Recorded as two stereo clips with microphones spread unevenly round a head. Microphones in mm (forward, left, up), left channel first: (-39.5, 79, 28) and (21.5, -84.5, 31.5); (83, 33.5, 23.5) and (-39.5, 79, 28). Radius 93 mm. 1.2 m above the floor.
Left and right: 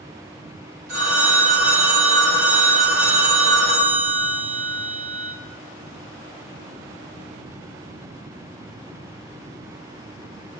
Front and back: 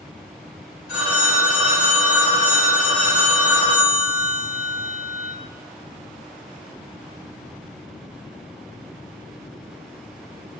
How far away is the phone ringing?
About 1.7 m.